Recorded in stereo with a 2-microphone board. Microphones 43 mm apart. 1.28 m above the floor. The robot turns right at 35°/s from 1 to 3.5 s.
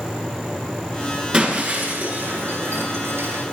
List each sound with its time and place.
1.3 s breaking glass: 25° right (ahead or behind), 10 m; by 3.4 s 80° right, 10 m